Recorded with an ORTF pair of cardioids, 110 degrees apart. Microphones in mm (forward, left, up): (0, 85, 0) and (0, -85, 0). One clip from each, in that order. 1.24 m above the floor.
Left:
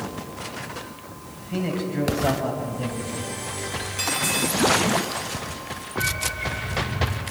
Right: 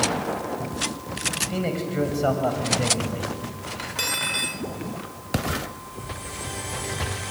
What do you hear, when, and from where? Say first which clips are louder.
1.4 s a man speaking: right 2 dB; 30° right, 7 m; by 3.3 s 40° right, 7 m
3.8 s cutlery clinking: right 1 dB; 20° right, 2 m